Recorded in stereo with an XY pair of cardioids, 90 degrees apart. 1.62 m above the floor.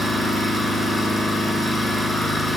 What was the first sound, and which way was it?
An engine running, 10° left.